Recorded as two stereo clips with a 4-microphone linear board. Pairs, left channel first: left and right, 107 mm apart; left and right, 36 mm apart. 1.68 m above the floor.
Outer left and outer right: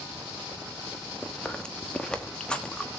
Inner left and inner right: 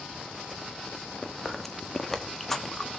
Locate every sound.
1.2 s chewing: 10° left (ahead or behind), 1.1 m